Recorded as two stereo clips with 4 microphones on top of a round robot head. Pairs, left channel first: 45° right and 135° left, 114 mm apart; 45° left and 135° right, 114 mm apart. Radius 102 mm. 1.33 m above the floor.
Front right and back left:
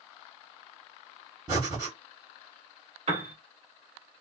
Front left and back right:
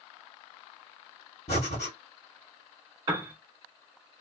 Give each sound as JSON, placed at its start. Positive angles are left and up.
{"t": 1.5, "sound": "breathing", "azimuth_deg": 75, "distance_m": 1.4}
{"t": 3.1, "sound": "a piano", "azimuth_deg": 170, "distance_m": 1.2}